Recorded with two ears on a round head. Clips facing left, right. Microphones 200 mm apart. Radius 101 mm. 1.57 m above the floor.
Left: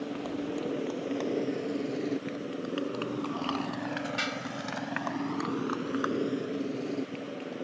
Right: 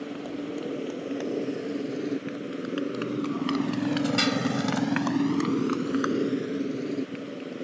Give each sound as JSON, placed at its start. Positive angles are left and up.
{"t": 0.0, "sound": "a motorcycle", "side_deg": -5}